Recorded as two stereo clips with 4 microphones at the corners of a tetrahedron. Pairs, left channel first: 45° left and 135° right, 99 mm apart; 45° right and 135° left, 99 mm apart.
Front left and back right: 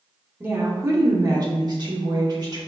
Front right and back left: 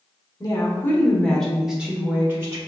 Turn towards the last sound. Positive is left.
turn(degrees=-170)